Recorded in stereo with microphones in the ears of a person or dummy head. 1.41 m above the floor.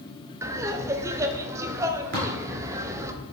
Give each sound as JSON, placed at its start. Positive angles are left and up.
{"t": 0.4, "sound": "laughter", "side_deg": -15, "distance_m": 0.7}
{"t": 2.1, "sound": "tapping", "side_deg": -50, "distance_m": 3.5}